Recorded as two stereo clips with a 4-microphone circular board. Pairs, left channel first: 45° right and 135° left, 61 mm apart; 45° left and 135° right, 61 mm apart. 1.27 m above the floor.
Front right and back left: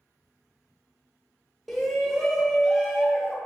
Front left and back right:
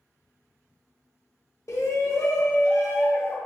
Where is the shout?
45° left, 0.9 m.